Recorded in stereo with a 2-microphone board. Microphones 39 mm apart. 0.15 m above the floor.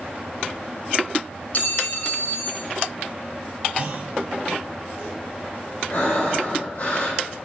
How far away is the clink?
About 1.0 m.